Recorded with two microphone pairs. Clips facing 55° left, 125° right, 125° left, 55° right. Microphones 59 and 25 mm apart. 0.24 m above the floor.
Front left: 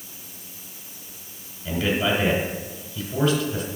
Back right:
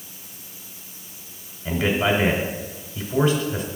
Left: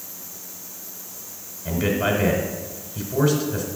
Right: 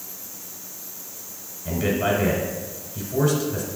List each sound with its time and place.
1.6 s a man speaking: 170° right, 1.2 m